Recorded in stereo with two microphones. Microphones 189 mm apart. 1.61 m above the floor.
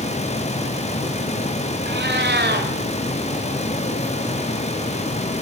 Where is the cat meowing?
65° right (ahead or behind), 3.5 m.